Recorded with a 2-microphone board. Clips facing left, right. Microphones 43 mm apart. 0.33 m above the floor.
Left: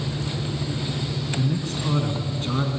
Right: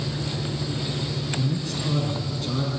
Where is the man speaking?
35° left (ahead or behind), 3.5 m.